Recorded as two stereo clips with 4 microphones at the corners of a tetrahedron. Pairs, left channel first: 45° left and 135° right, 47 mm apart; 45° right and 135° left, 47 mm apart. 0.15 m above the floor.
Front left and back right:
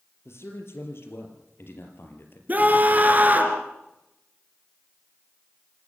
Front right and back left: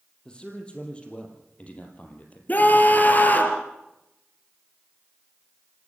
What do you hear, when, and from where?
0.2 s a man speaking: 25° left, 4.5 m; by 2.4 s 10° left, 4 m
2.5 s a scream: 90° right, 3 m